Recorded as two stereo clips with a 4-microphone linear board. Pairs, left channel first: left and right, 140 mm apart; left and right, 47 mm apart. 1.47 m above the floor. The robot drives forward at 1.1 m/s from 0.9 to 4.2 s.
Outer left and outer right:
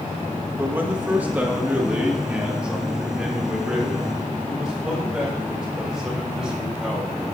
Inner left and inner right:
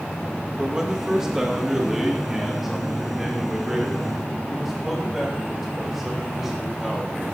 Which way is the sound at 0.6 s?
15° right (ahead or behind).